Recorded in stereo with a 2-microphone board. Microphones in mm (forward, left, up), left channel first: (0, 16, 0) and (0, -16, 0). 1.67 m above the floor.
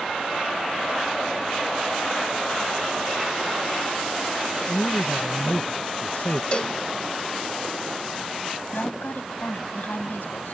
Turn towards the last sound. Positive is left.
turn(degrees=85)